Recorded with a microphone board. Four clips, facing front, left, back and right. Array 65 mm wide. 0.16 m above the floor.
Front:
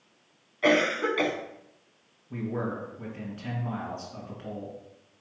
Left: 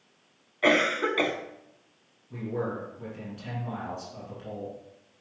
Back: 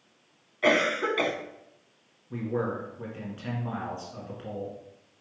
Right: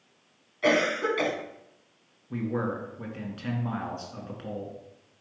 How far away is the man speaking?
About 2.5 m.